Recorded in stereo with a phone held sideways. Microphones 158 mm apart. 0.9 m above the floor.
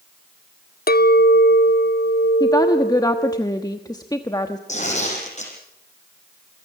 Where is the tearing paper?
45° left (ahead or behind), 6 m.